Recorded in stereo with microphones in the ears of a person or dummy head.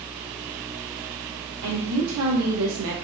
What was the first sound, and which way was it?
A woman speaking, 70° right (ahead or behind).